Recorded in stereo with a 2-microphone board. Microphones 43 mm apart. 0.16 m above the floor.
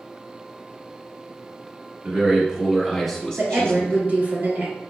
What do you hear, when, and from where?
2.0 s a man speaking: 30° right (ahead or behind), 1.2 m; by 4.0 s 30° left (ahead or behind), 1.1 m
3.4 s a woman speaking: 50° right (ahead or behind), 1.9 m